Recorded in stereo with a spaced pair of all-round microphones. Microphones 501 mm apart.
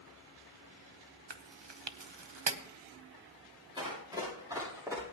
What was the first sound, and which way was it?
Chewing, 55° right (ahead or behind).